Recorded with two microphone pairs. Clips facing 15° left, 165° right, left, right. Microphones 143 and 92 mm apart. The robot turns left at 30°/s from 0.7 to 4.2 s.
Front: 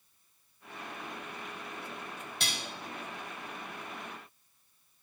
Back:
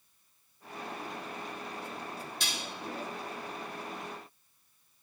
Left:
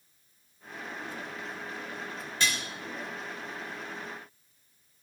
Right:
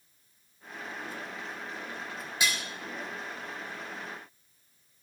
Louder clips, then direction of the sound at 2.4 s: Front 2 dB, even; 10° right.